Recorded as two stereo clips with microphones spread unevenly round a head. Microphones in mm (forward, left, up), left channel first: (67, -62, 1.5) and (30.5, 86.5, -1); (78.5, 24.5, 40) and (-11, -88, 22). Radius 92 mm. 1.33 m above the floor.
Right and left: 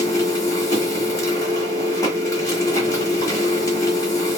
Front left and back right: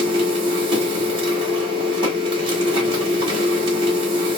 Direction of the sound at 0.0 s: 120° right.